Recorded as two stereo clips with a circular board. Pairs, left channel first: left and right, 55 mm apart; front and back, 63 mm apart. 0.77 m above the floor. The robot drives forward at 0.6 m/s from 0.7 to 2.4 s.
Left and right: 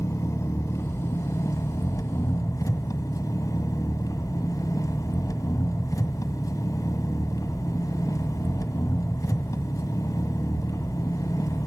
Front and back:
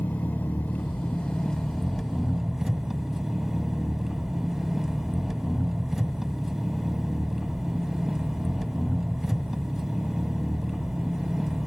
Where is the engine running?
65° left, 2 m; by 11.7 s 95° left, 1.8 m.